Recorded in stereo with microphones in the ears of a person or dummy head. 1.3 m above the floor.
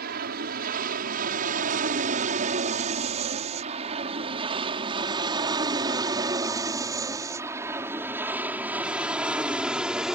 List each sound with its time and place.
0.0 s an aircraft: 55° right (ahead or behind); by 10.2 s 5° right (ahead or behind)